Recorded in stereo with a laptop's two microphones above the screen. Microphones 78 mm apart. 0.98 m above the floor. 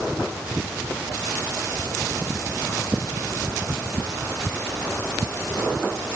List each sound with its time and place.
Only background noise.